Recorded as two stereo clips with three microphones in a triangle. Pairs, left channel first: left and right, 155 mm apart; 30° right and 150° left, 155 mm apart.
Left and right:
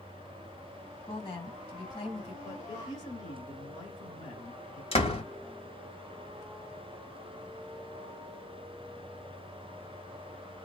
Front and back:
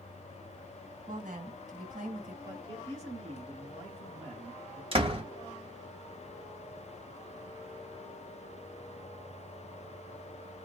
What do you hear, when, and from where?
1.1 s a woman speaking: 135° left, 2.5 m
2.4 s a man speaking: 125° left, 1.7 m
4.9 s a door slam: 115° left, 1.1 m